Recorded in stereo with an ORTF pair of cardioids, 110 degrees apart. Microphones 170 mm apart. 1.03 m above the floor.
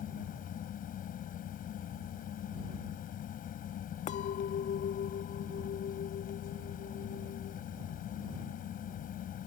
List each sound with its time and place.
0.0 s a fan: 55° left
4.1 s a clink: 45° left